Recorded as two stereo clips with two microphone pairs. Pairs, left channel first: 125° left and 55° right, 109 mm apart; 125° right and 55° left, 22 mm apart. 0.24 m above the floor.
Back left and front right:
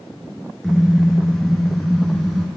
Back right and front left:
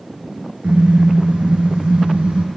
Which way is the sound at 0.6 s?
30° left.